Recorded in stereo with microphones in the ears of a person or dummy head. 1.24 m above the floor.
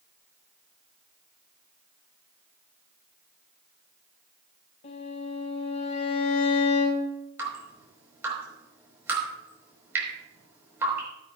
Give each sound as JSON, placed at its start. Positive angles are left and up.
{"t": 4.8, "sound": "a violin", "side_deg": 45, "distance_m": 1.9}
{"t": 7.4, "sound": "dripping", "side_deg": -15, "distance_m": 4.5}